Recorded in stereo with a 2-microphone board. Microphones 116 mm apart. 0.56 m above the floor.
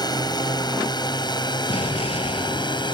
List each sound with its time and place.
0.0 s a drone: 35° left (ahead or behind); by 2.9 s 40° left (ahead or behind)
1.7 s an explosion: 65° left (ahead or behind)